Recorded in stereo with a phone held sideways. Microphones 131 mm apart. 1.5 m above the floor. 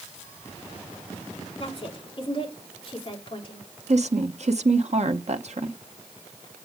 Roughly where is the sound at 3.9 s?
Right.